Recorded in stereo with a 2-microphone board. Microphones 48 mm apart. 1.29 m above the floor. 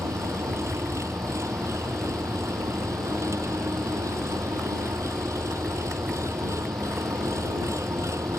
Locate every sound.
0.0 s an engine running: 85° right